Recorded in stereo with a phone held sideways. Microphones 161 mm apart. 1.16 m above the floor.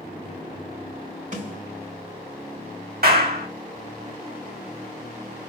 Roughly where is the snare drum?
Right.